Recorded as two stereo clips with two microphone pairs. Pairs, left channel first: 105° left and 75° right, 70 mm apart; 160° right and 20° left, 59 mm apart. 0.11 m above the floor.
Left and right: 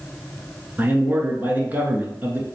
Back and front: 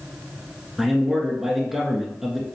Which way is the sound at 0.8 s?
60° right.